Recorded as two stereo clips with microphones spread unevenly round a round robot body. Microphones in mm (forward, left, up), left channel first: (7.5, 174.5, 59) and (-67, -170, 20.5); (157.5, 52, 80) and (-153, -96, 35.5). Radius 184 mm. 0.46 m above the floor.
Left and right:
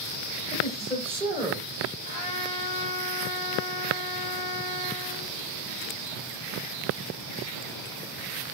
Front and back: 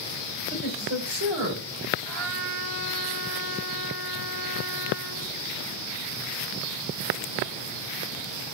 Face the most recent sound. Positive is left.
turn(degrees=155)